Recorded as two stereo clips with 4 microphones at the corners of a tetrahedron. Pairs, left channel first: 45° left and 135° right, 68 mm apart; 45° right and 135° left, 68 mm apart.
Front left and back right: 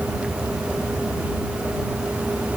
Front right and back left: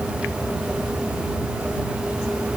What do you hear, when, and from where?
Only background noise.